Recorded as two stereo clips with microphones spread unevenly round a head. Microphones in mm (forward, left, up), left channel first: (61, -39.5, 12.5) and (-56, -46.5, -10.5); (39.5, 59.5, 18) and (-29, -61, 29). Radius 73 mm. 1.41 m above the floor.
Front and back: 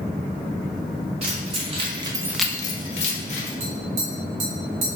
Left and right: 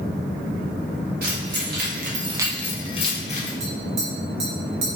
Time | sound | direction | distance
1.2 | keys jangling | 140° right | 1.7 m
3.6 | tapping | 165° right | 1.8 m